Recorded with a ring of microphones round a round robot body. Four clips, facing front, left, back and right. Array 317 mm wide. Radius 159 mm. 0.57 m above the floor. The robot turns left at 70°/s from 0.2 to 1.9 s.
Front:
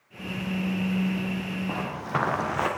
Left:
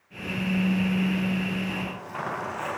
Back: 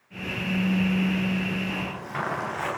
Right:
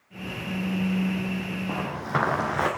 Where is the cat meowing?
No cat meowing in this recording.